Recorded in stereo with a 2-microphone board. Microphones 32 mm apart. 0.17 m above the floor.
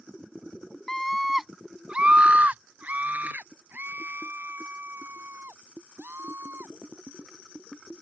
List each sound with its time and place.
0.9 s a scream: 15° left (ahead or behind); by 6.7 s 80° right